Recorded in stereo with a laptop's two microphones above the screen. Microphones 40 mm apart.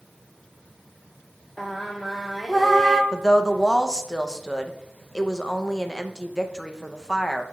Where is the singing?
10° left (ahead or behind), 0.6 m.